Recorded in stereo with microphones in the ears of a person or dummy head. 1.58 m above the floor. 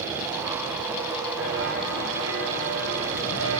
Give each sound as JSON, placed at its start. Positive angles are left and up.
{"t": 1.4, "sound": "footsteps", "side_deg": -75, "distance_m": 6.5}